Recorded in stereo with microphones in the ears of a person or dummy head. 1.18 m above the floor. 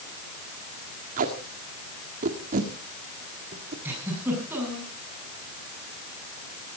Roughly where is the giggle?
Centre.